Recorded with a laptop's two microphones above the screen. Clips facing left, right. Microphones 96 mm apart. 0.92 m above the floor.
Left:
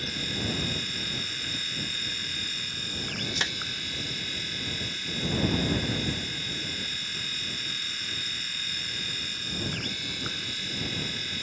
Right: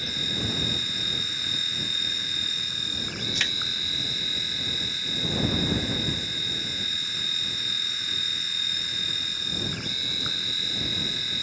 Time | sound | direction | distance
0.0 | a machine running | 10° right (ahead or behind) | ?
3.4 | a clap | 30° left (ahead or behind) | ?